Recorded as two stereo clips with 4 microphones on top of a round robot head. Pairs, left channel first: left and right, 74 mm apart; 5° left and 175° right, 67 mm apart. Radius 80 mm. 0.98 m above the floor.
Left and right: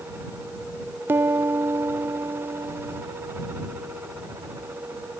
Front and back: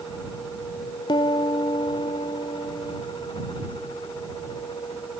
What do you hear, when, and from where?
1.1 s a piano: 30° right